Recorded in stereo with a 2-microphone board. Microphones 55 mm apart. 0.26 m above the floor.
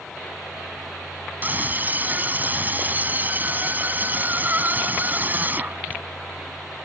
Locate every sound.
1.4 s a scream: 35° right (ahead or behind)